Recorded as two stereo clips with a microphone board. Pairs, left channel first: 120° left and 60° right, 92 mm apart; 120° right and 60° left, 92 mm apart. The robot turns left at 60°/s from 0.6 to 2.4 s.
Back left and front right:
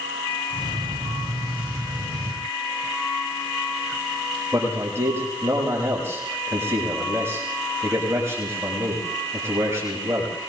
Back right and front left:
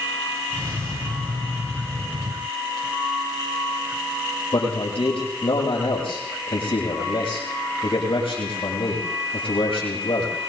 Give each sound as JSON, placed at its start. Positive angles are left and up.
{"t": 4.5, "sound": "a man speaking", "azimuth_deg": -125, "distance_m": 8.0}